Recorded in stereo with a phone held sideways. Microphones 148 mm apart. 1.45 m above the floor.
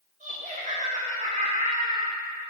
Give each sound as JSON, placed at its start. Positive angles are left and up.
{"t": 0.2, "sound": "laughter", "side_deg": -55, "distance_m": 1.6}